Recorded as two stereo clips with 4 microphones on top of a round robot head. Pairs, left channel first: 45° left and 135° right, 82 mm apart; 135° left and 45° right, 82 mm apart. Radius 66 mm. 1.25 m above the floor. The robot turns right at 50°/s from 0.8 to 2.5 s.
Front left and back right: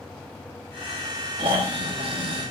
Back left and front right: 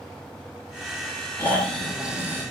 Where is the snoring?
160° right, 2 m; by 2.5 s 105° right, 2 m.